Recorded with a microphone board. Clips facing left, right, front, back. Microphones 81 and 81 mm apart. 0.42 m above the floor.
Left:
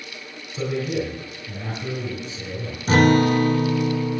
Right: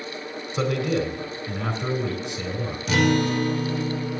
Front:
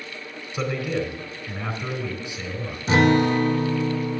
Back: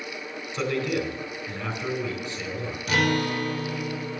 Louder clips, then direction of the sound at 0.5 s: Right 1 dB, even; 75° right.